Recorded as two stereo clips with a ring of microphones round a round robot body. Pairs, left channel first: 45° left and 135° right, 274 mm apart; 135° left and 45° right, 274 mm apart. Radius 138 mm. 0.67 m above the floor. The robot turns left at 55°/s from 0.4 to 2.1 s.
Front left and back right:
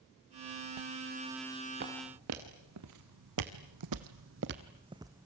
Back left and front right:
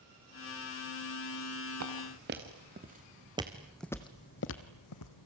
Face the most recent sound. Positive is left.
turn(degrees=140)